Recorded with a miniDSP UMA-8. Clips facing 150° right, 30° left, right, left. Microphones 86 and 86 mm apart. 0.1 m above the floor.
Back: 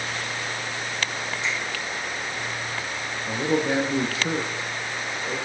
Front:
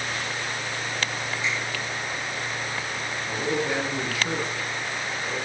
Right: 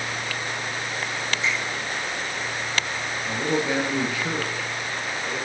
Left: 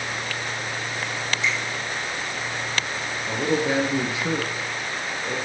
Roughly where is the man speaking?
Behind left.